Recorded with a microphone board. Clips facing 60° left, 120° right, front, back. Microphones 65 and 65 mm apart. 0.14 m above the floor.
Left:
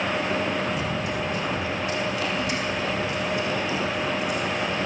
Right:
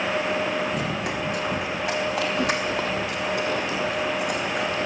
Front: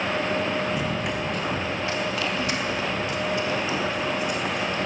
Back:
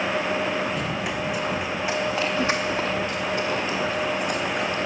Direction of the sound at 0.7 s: 85° right.